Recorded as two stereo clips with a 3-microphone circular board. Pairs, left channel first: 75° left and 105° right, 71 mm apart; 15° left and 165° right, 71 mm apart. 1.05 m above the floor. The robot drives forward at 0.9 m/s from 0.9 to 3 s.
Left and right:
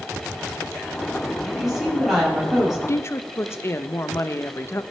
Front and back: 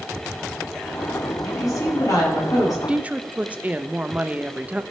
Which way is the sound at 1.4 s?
20° right.